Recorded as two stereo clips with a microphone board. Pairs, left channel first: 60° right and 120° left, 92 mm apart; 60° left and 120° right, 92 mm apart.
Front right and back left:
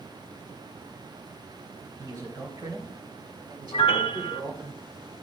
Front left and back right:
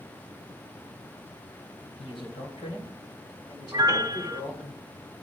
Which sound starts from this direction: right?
A piano, at 3.7 s.